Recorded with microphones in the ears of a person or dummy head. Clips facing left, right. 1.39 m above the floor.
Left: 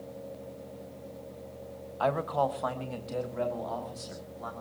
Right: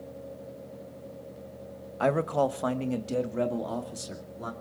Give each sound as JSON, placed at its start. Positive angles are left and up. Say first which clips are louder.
{"t": 2.0, "sound": "a man speaking", "louder": "right 3 dB", "side_deg": -35, "distance_m": 0.9}